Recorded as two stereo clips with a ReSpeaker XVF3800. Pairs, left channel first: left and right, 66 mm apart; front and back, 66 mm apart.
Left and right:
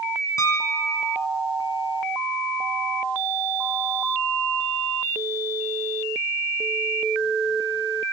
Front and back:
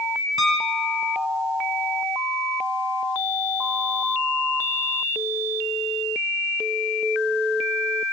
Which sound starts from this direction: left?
A piano, at 0.4 s.